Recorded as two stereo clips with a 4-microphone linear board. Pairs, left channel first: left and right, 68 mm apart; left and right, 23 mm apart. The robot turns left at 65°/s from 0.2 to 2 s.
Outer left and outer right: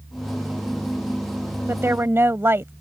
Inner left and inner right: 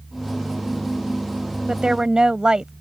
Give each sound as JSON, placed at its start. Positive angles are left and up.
{"t": 1.7, "sound": "a woman speaking", "side_deg": -40}